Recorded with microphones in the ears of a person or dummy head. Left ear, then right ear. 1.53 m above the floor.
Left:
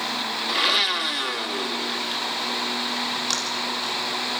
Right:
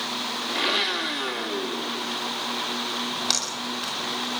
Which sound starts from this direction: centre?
A splash, at 3.1 s.